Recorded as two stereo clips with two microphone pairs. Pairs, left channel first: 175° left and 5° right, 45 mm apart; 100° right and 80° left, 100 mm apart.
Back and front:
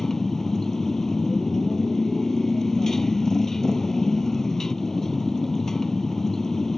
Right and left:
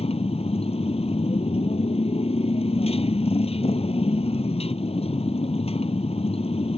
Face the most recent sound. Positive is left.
turn(degrees=-100)